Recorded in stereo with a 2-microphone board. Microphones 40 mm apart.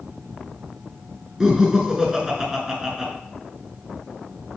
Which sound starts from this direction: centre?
Laughter, at 1.4 s.